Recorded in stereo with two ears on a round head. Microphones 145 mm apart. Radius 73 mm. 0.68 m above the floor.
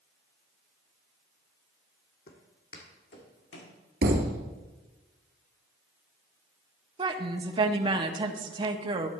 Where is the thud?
65° right (ahead or behind), 1.8 m.